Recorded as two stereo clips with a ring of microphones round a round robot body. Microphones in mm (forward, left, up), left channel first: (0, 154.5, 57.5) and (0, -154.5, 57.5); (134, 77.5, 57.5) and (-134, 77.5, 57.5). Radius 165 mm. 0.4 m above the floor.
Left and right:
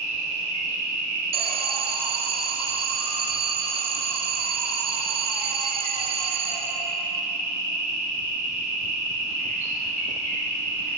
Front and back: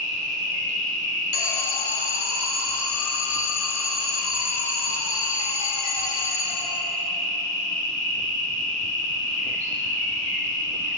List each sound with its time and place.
0.0 s an insect: 10° left, 2.5 m
1.3 s an alarm: 20° right, 0.7 m